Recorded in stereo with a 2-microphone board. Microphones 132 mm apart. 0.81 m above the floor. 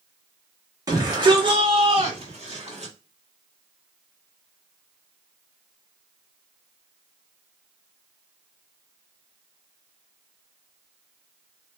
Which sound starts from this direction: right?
A shout, at 0.9 s.